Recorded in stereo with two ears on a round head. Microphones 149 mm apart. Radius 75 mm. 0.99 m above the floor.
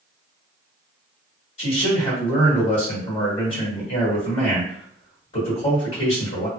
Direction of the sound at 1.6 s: 45° left (ahead or behind).